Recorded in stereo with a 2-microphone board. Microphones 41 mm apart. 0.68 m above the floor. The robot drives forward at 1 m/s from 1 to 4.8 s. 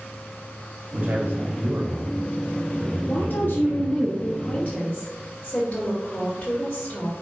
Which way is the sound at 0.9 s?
45° right (ahead or behind).